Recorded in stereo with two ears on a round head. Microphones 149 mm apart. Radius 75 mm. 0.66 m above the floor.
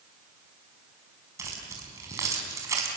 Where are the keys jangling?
20° right (ahead or behind), 5 m.